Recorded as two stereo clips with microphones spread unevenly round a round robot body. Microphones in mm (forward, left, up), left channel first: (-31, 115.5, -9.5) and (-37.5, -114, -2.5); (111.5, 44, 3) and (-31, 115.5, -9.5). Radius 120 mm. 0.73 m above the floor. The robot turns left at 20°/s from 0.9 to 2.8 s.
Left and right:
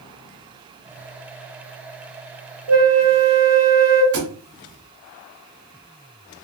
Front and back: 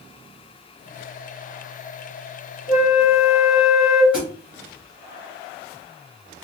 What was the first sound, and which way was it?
A flute, 125° right.